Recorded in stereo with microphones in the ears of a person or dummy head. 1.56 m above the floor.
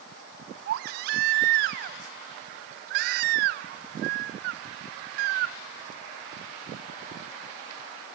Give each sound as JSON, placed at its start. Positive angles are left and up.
{"t": 0.7, "sound": "a baby crying", "side_deg": -55, "distance_m": 1.0}